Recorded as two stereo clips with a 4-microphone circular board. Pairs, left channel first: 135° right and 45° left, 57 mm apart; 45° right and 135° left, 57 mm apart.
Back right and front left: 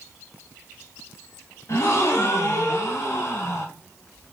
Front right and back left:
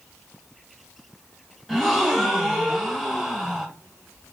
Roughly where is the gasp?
Behind right.